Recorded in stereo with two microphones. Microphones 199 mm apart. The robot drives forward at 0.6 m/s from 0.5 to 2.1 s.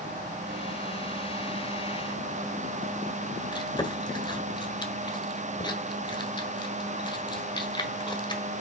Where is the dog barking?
I don't hear a dog barking.